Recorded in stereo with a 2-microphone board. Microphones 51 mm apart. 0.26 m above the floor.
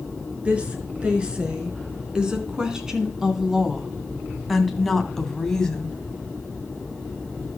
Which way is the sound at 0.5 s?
25° right (ahead or behind).